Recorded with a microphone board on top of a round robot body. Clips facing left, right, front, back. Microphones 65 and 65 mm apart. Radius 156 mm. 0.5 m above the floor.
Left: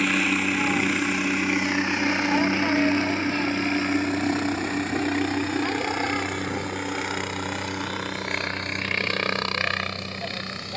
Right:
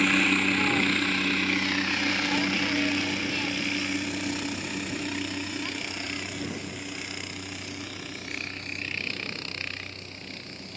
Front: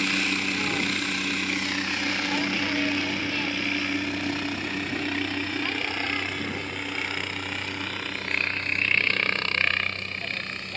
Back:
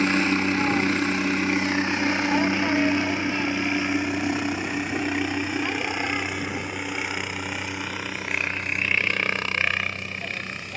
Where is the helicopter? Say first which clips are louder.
Left 1 dB, back 5 dB; 175° left; by 10.8 s 95° left.